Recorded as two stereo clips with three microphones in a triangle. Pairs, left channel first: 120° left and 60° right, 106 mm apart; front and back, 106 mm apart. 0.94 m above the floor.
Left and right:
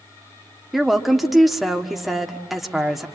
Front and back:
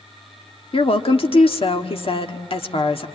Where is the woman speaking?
30° left, 1.7 m.